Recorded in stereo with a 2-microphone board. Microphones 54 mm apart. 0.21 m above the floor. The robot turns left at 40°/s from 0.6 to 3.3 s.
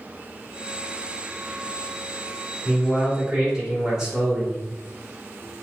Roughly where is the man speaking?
Centre.